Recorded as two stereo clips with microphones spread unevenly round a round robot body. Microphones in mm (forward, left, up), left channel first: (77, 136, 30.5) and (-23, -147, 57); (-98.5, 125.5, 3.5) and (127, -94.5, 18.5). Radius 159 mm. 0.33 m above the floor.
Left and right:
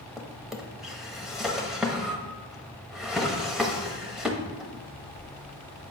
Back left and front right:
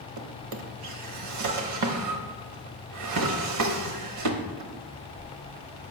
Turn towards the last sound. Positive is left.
turn(degrees=-20)